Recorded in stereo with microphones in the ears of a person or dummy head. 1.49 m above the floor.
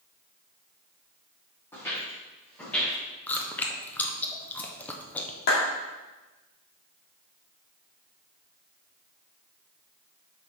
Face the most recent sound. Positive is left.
turn(degrees=60)  # may be behind; listen again after turning